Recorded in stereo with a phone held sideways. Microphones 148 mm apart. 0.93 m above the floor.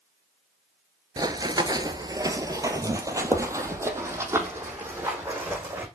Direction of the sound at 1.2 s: 25° right (ahead or behind).